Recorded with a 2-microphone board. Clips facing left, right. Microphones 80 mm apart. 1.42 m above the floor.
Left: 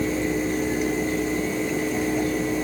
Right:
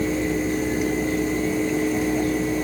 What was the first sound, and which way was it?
Only background noise.